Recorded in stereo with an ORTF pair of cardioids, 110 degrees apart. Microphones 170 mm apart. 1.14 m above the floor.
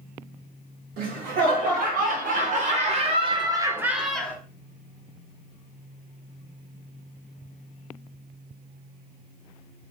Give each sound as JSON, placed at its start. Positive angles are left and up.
{"t": 1.0, "sound": "laughter", "azimuth_deg": -70, "distance_m": 1.9}